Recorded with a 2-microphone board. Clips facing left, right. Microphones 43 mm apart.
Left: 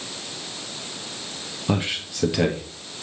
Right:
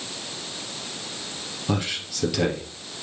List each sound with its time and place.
1.7 s a man speaking: 25° left (ahead or behind), 2 m